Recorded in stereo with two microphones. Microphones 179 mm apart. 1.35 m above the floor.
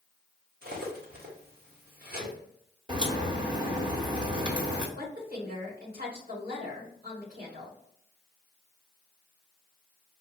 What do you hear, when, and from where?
0.6 s cutlery clinking: 60° right (ahead or behind), 1.3 m
2.9 s a crack: 25° right (ahead or behind), 1.3 m
5.0 s a woman speaking: 55° right (ahead or behind), 2 m